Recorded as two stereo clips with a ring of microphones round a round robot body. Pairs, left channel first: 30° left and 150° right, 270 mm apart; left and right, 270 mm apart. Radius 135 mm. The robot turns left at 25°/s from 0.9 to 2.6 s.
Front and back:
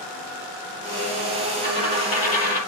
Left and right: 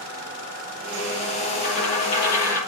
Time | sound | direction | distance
1.6 | a dropped coin | 80° left | 7.5 m